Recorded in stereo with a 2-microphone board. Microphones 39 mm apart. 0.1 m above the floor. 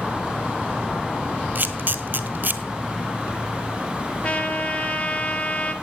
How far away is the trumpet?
About 1.2 m.